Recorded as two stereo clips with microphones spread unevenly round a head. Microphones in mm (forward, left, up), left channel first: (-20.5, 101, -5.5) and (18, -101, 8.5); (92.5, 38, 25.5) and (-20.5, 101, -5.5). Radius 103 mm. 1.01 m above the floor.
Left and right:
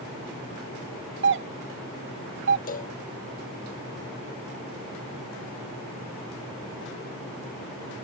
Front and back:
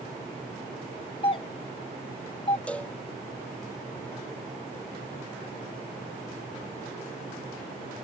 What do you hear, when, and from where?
1.2 s a doorbell: 90° right
2.7 s a cowbell: 50° left